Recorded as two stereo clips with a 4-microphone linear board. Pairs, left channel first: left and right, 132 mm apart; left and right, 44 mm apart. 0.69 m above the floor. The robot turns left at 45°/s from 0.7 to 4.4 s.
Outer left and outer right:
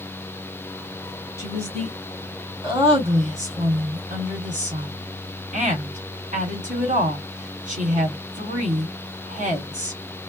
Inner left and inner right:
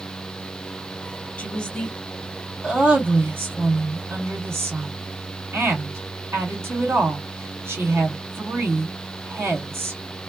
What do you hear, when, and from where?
1.4 s a woman speaking: 40° left, 1.4 m; by 10.0 s 95° right, 1.4 m